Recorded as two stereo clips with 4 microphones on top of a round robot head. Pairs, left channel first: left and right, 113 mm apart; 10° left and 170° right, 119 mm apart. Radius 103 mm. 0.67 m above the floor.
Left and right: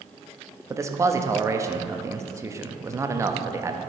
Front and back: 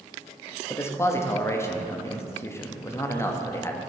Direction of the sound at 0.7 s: 45° right.